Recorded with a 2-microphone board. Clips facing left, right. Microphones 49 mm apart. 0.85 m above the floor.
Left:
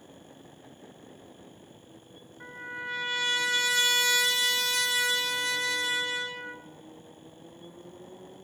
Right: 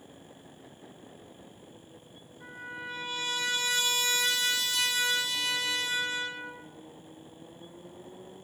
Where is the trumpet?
60° left (ahead or behind), 1.6 m.